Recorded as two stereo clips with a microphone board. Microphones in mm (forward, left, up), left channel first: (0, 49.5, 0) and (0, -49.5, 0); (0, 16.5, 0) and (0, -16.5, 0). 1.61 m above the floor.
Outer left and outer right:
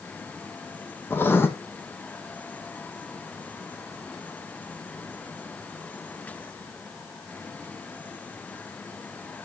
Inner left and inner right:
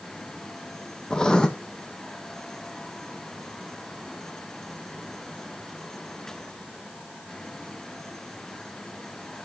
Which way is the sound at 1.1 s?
20° left (ahead or behind).